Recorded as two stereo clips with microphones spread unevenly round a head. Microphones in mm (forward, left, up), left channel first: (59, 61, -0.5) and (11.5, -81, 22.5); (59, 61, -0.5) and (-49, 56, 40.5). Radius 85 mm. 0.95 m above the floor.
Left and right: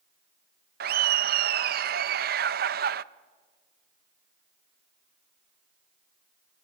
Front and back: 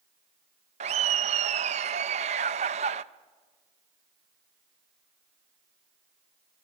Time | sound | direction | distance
0.8 | laughter | 135° right | 0.7 m